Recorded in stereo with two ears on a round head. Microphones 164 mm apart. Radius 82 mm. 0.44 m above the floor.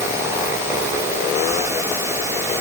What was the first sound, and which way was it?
Only background noise.